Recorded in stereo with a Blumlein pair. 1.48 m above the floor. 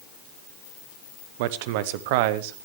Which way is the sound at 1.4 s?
50° right.